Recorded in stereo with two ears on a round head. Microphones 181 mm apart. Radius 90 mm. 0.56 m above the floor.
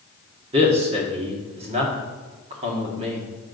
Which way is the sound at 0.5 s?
30° right (ahead or behind).